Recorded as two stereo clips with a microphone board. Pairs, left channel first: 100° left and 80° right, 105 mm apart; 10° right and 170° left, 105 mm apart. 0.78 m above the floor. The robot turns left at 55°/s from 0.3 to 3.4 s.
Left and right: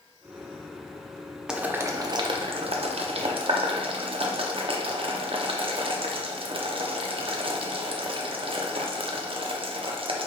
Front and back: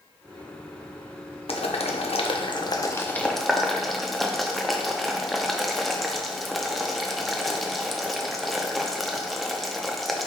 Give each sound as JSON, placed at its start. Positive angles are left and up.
{"t": 1.5, "sound": "boiling", "azimuth_deg": 5, "distance_m": 0.6}